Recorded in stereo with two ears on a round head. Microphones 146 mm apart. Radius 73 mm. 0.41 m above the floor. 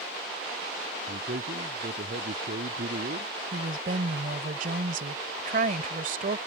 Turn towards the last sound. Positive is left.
turn(degrees=-55)  # may be behind; listen again after turning